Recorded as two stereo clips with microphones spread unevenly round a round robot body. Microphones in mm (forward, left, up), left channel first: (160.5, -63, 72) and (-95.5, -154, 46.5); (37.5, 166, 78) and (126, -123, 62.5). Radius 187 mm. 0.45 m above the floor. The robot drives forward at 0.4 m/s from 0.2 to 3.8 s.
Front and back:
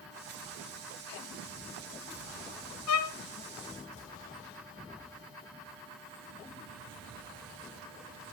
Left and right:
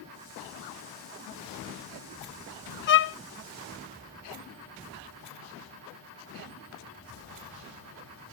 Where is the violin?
50° left, 0.6 m; by 3.1 s 60° left, 0.6 m.